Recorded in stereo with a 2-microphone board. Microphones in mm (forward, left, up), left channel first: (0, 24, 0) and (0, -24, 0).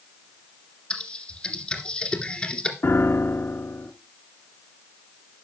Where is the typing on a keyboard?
20° left (ahead or behind), 2 m.